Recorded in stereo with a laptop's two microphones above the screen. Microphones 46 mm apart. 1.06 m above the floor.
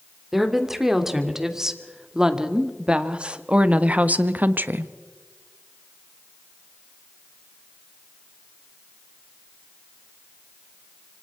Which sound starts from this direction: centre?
A woman speaking, at 0.3 s.